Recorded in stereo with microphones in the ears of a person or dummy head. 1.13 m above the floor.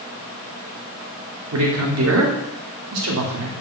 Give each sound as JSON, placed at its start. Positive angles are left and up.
{"t": 1.5, "sound": "a man speaking", "side_deg": -80, "distance_m": 2.5}